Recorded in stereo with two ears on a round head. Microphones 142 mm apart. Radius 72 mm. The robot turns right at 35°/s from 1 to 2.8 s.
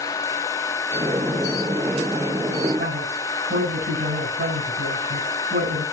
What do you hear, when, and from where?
2.8 s a man speaking: 70° right (ahead or behind), 6 m